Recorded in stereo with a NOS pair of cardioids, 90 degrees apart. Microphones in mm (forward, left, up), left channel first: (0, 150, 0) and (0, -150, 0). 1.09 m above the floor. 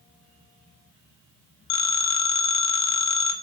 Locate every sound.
1.7 s a phone ringing: 65° left, 1.0 m